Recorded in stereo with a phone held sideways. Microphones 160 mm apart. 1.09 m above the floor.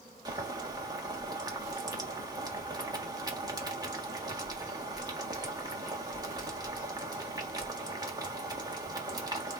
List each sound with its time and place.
0.2 s boiling: 25° right (ahead or behind), 1.3 m